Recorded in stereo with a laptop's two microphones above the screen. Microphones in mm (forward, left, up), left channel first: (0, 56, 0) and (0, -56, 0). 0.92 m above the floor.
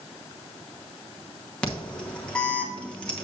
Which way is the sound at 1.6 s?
10° left (ahead or behind).